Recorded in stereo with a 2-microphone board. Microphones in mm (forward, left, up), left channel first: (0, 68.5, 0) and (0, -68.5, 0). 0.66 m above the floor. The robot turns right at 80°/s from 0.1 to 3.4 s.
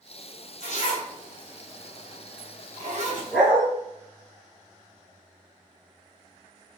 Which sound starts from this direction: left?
A zipper, at 0.6 s.